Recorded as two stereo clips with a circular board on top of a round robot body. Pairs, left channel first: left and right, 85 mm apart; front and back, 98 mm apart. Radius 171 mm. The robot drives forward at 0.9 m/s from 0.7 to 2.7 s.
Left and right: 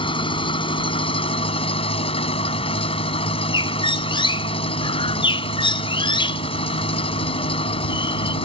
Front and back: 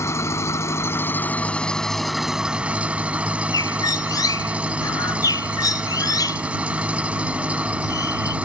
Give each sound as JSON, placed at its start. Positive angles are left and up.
{"t": 0.0, "sound": "an engine running", "azimuth_deg": 65}
{"t": 3.5, "sound": "a bird", "azimuth_deg": 60}